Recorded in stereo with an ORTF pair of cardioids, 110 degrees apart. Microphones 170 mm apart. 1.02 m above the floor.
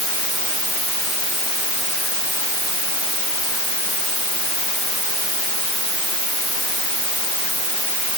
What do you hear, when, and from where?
Only background noise.